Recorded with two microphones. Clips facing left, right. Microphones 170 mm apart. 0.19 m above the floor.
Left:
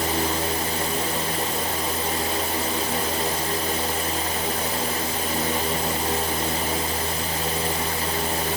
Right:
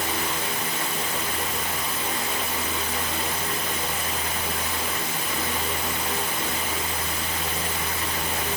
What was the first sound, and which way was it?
Only background noise.